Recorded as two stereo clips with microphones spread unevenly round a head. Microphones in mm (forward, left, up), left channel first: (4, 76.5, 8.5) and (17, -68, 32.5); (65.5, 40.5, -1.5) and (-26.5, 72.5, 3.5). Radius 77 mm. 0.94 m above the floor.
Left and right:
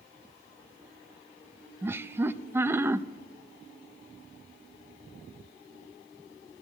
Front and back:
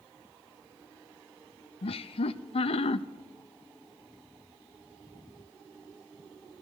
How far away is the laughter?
About 0.6 m.